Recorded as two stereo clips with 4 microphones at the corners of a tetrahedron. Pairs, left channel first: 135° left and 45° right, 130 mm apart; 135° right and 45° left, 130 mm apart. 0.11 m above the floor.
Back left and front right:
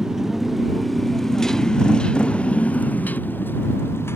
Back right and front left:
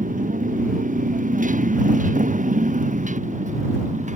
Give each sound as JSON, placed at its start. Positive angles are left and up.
{"t": 0.0, "sound": "a motorcycle", "azimuth_deg": 40}